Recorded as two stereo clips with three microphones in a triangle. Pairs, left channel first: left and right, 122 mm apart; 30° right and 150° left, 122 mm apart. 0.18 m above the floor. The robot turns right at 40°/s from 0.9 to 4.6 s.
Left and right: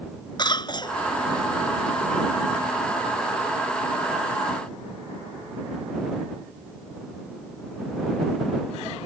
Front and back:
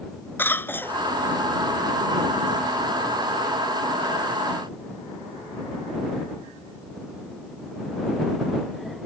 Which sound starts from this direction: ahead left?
A cough, at 0.4 s.